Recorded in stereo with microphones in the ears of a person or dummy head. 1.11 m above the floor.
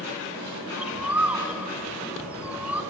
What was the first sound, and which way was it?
A bird, 10° right (ahead or behind).